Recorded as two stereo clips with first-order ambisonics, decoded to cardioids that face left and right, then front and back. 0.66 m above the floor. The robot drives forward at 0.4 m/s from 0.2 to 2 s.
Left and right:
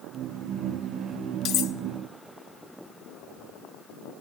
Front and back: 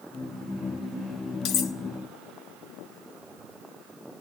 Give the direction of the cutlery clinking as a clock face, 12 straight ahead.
11 o'clock.